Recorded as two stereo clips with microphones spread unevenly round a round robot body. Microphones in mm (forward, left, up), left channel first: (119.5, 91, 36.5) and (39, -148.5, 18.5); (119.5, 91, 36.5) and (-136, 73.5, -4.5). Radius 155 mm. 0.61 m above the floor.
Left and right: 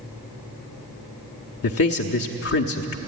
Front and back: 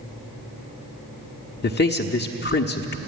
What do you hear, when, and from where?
1.6 s a man speaking: 55° left, 1.1 m